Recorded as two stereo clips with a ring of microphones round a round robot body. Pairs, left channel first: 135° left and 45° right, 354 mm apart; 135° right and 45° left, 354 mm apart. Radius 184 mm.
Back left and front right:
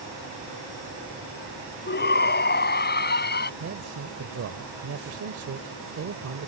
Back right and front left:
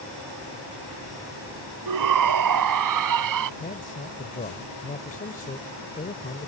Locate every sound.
1.9 s a shout: 75° left
3.6 s a man speaking: 75° right